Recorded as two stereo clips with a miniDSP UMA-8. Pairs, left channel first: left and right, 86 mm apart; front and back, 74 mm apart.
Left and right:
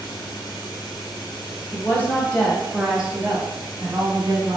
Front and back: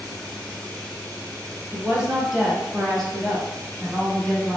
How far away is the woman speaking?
About 1.4 m.